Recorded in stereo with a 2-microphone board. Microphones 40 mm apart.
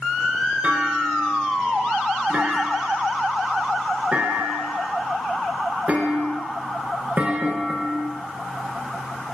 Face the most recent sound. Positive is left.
turn(degrees=-35)  # may be behind; listen again after turning